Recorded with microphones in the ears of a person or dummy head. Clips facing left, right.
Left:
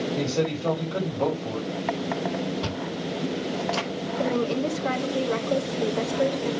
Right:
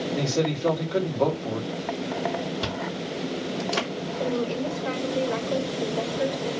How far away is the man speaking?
About 3 m.